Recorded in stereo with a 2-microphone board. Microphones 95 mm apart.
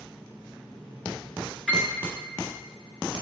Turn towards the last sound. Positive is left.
turn(degrees=10)  # may be behind; listen again after turning